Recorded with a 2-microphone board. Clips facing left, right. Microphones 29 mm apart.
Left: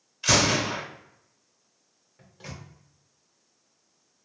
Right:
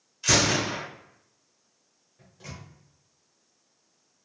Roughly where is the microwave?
Left.